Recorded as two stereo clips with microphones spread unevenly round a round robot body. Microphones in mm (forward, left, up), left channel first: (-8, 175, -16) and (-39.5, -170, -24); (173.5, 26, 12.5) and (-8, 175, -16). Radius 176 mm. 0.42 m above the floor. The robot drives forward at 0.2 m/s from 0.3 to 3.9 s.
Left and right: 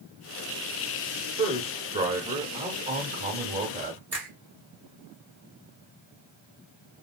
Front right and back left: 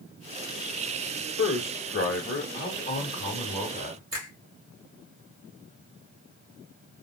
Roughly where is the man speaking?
Ahead right.